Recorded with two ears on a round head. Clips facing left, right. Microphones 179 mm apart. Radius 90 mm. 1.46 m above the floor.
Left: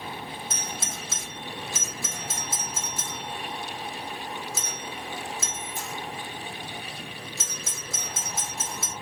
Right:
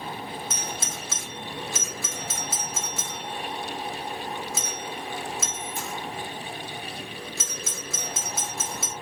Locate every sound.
0.5 s a doorbell: 50° right (ahead or behind), 0.6 m